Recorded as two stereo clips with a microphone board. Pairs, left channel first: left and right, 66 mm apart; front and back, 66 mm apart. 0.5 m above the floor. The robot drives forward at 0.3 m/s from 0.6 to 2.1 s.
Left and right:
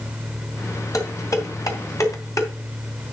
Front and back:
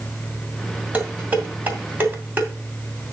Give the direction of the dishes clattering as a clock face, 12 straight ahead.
8 o'clock.